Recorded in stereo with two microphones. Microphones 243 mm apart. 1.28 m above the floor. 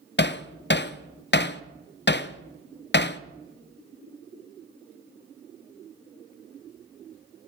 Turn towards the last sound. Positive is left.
turn(degrees=45)  # may be behind; listen again after turning